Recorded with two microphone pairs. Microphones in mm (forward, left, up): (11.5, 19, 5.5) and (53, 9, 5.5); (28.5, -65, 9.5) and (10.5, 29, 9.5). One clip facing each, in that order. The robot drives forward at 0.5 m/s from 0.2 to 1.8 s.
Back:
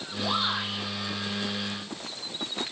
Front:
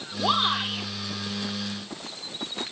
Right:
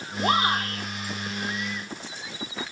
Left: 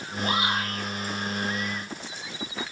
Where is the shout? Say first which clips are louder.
Front 4 dB, right 4 dB; 40° right, 7 m; by 0.9 s 45° right, 6.5 m.